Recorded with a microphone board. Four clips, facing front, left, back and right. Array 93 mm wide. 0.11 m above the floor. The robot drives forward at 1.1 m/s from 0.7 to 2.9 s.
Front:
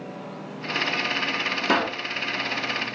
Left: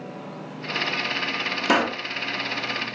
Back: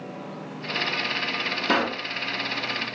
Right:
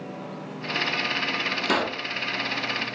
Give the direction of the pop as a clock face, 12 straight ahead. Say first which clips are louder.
Left 5 dB, even; 10 o'clock.